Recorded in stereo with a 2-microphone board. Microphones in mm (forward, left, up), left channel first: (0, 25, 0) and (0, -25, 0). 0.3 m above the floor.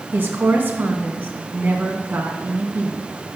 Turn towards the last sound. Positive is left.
turn(degrees=-40)  # may be behind; listen again after turning